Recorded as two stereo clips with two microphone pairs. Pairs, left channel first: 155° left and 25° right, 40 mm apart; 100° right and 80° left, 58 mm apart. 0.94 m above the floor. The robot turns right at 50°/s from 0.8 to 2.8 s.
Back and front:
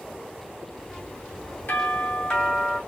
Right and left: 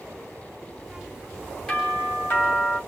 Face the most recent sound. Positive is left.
turn(degrees=-125)